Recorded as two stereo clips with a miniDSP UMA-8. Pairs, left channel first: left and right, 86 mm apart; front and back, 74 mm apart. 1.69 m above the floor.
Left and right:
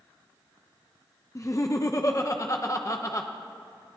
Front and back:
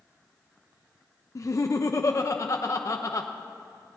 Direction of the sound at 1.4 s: 45° left.